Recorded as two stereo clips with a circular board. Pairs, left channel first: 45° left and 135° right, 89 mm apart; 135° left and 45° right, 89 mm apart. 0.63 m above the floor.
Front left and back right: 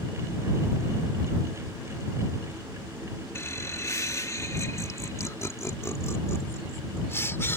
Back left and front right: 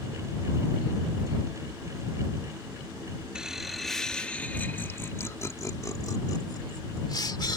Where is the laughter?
25° left; by 7.6 s 105° left.